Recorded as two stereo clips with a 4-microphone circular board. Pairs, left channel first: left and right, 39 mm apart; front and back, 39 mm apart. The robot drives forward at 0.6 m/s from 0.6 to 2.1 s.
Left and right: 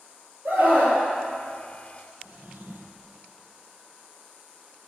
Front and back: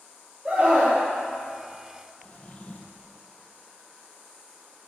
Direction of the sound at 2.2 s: 55° right.